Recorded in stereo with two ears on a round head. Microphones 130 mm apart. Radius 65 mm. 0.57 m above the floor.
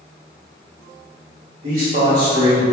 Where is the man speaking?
55° right (ahead or behind), 1.6 m.